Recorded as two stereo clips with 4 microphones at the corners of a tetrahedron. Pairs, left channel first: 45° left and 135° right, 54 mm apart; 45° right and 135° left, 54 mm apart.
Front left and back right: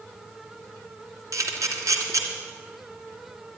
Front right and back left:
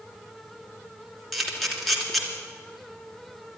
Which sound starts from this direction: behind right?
A camera shutter, at 1.3 s.